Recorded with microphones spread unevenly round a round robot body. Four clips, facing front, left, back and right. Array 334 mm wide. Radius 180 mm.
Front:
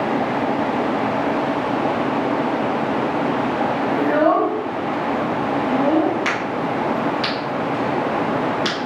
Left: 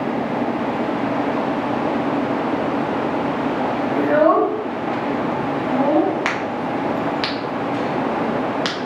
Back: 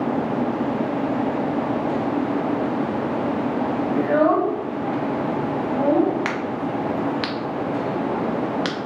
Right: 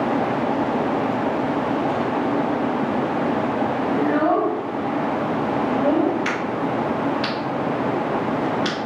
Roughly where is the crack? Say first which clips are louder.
Left 1 dB, front 3 dB; behind left.